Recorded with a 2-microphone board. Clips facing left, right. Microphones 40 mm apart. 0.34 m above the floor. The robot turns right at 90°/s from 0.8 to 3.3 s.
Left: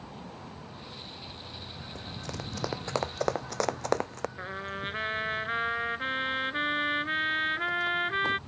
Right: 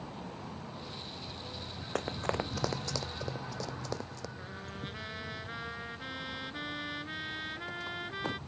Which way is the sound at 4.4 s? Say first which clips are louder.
Left 7 dB; 45° left (ahead or behind).